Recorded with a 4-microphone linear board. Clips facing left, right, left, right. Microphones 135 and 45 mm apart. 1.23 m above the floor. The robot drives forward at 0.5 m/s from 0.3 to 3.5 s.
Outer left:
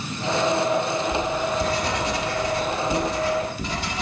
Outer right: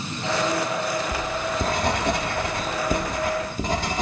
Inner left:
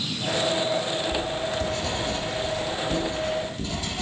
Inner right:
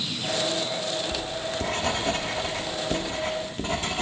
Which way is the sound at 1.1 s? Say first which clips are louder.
Outer left 3 dB, inner left 3 dB; 45° right (ahead or behind).